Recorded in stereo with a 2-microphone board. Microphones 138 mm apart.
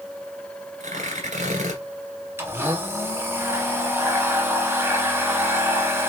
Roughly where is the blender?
Centre.